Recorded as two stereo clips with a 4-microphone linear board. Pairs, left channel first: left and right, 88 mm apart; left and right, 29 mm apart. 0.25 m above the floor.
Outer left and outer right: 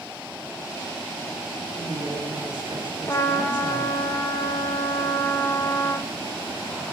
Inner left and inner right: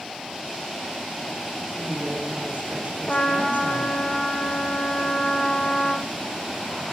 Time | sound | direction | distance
1.8 | a woman speaking | 70° right (ahead or behind) | 2.5 m
3.1 | a trumpet | 35° left (ahead or behind) | 1.0 m